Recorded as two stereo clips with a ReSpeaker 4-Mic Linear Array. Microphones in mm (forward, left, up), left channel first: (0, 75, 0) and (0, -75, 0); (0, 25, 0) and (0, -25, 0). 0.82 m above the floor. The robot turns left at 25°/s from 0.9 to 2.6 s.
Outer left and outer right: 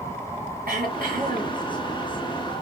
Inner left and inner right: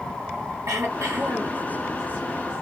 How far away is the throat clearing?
About 2.5 m.